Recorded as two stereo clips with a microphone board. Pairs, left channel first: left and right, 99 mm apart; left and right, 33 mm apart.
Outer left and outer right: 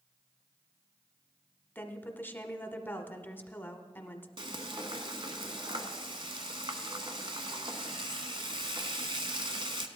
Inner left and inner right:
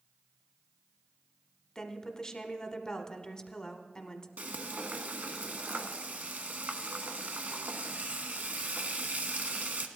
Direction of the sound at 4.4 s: 60° right (ahead or behind).